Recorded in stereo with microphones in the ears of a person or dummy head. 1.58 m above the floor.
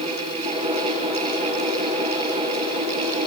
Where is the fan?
25° right (ahead or behind), 5 m.